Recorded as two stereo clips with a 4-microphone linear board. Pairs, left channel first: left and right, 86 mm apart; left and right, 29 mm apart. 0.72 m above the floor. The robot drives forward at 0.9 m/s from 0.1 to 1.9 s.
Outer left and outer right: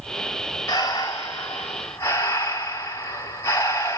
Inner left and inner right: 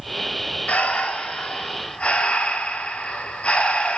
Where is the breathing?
50° left (ahead or behind), 1.6 m; by 4.0 s 30° left (ahead or behind), 2.5 m.